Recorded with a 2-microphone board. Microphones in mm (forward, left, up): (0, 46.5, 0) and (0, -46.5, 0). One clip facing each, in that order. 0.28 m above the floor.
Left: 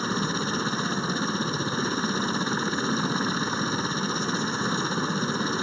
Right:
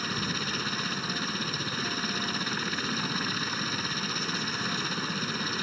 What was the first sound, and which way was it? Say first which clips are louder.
A helicopter: left 6 dB; 30° left (ahead or behind).